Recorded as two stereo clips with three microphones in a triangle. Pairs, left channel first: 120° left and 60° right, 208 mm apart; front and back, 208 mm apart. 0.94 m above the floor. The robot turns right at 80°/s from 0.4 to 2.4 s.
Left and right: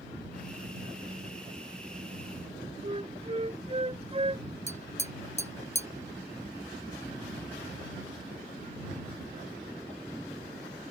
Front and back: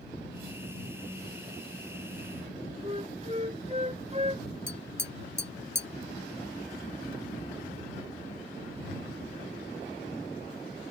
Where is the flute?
120° right.